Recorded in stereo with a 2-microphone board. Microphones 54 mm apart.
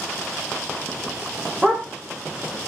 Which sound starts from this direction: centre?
A dog barking, at 1.6 s.